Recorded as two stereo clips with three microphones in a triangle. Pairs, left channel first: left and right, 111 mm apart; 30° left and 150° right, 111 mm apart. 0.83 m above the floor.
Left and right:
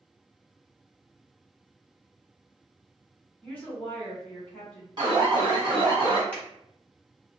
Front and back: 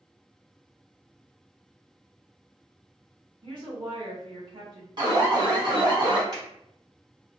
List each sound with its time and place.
3.4 s a woman speaking: 165° left, 1.5 m
5.0 s an alarm: 120° right, 1.0 m
6.3 s a finger snap: 160° left, 1.9 m